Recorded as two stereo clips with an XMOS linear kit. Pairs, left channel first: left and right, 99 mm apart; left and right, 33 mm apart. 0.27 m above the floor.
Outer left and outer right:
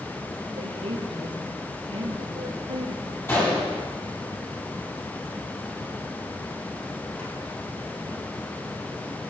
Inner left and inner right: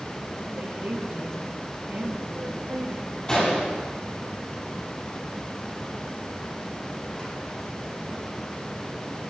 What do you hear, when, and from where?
0.6 s a woman speaking: 75° right (ahead or behind), 4.5 m
3.3 s a gunshot: 25° left (ahead or behind), 8.5 m